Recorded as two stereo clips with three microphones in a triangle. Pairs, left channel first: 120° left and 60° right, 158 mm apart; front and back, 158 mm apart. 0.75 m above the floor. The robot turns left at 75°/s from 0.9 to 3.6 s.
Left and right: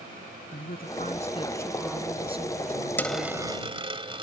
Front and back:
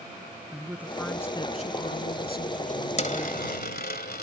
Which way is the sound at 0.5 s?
100° left.